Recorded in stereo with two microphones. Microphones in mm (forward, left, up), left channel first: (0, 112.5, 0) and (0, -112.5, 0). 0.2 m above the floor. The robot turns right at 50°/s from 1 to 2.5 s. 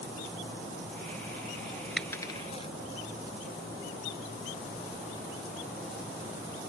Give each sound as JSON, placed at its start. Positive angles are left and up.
{"t": 2.0, "sound": "a dropped coin", "side_deg": 0}